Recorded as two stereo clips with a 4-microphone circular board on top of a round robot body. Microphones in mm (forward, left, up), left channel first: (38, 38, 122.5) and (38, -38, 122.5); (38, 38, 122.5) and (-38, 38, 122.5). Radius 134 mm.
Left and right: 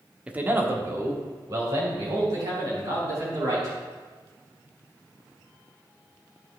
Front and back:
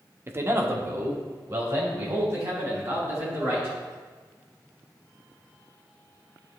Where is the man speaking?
155° right, 1.2 m; by 3.7 s 125° right, 6 m.